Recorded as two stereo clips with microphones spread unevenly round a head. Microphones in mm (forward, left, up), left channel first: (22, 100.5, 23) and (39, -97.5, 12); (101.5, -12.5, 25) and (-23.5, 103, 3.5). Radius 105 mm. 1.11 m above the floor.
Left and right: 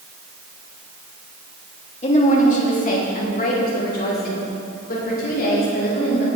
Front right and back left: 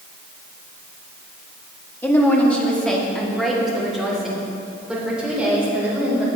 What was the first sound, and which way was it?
A woman speaking, 35° left.